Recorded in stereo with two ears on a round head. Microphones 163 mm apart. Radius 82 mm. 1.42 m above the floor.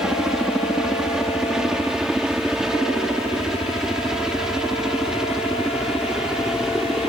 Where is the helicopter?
5° right (ahead or behind).